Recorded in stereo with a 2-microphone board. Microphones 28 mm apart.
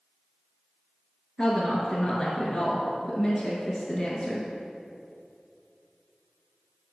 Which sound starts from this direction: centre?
A woman speaking, at 1.4 s.